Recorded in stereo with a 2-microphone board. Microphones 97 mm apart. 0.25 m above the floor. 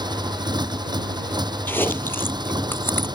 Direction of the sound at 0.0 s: 50° right (ahead or behind).